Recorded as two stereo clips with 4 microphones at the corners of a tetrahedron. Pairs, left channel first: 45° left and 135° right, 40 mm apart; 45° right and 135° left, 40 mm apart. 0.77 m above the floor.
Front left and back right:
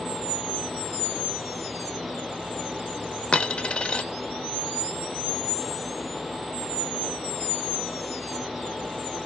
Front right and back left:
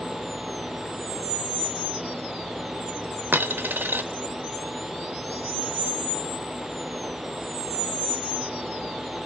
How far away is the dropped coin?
About 0.8 m.